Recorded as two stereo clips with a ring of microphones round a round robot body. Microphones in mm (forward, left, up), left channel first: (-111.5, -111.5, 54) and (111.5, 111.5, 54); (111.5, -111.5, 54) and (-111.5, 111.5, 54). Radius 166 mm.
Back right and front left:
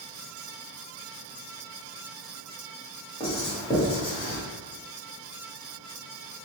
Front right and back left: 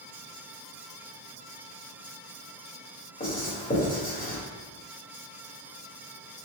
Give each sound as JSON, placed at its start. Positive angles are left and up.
{"t": 3.2, "sound": "writing", "azimuth_deg": -80, "distance_m": 1.6}